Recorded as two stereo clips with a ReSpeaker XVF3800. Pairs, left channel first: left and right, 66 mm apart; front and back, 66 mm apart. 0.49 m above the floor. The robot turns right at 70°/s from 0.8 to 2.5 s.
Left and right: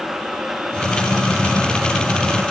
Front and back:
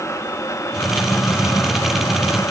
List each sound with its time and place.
Only background noise.